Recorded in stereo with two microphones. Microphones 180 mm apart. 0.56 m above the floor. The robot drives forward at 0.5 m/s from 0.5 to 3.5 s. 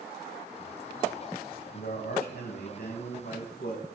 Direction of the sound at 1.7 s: 65° left (ahead or behind).